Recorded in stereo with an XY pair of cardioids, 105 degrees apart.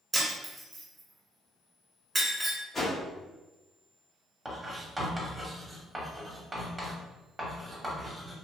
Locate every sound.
0.1 s breaking glass: 15° right, 1.6 m
2.7 s a whoosh: 35° left, 1.2 m
4.5 s writing: 15° right, 1.3 m